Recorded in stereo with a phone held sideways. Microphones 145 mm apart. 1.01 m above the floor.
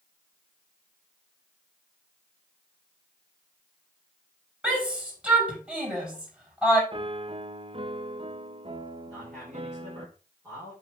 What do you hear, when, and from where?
4.6 s a shout: 10° right (ahead or behind), 6 m
6.9 s a piano: 40° right (ahead or behind), 0.6 m
9.1 s a man speaking: centre (ahead or behind), 4 m